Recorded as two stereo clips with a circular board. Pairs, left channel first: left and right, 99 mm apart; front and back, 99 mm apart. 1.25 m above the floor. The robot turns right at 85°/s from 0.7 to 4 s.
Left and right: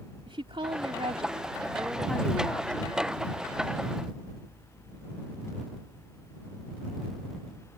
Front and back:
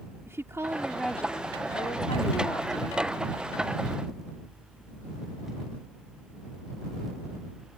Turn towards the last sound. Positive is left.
turn(degrees=165)